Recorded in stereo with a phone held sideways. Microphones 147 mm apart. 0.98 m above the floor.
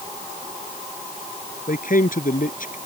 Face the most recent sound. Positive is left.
turn(degrees=65)  # may be behind; listen again after turning